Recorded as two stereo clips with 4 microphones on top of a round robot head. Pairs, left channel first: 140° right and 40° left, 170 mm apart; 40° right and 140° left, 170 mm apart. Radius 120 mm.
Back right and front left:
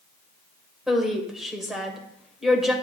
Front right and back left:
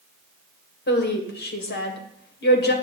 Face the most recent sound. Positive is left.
turn(degrees=-50)